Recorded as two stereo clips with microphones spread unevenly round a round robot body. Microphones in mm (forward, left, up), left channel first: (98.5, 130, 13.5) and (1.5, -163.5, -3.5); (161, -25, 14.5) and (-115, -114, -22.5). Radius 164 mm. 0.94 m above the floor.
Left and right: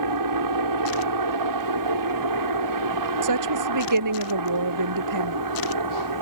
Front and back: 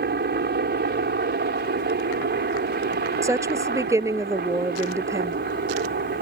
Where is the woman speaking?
80° right.